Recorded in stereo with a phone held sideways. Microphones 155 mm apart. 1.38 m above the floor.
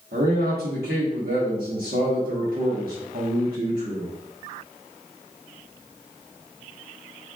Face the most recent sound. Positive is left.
turn(degrees=-80)